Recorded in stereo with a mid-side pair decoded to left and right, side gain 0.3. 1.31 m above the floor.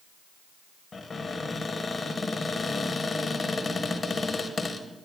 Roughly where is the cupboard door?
Ahead left.